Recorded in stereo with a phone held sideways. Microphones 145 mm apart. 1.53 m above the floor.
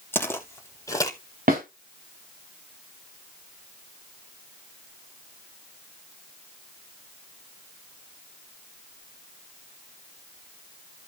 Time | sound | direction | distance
0.1 | footsteps | 15° left (ahead or behind) | 2 m
1.5 | a snare drum | 80° right | 4 m